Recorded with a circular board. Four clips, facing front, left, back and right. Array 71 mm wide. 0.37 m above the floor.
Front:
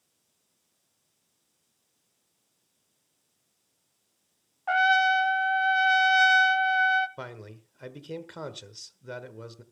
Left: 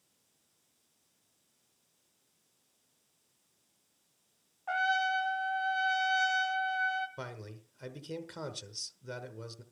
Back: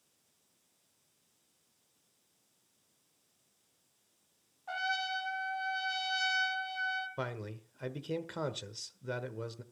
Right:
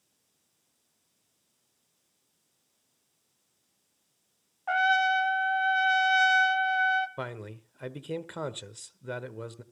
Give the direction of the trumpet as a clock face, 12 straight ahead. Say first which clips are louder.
Right 6 dB, front 14 dB; 1 o'clock.